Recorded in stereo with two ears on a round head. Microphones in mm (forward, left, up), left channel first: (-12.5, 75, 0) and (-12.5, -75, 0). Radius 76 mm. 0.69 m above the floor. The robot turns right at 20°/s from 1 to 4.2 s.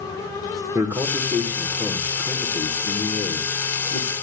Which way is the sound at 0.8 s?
15° right.